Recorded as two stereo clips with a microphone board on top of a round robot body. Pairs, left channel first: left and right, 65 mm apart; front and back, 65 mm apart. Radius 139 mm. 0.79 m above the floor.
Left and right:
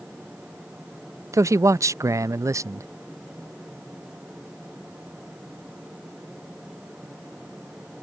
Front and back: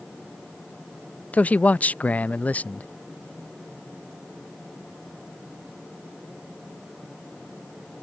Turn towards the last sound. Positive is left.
turn(degrees=-65)